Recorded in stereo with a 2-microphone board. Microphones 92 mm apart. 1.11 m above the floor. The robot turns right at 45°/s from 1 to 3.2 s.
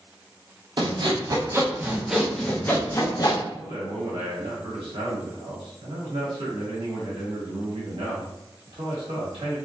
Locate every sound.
0.8 s sawing: 55° right, 0.5 m; by 3.4 s 45° left, 0.5 m
3.5 s a man speaking: 75° right (ahead or behind), 1.3 m